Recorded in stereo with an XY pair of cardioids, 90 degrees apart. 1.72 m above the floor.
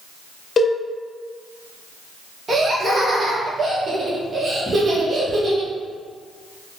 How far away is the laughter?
About 1.8 m.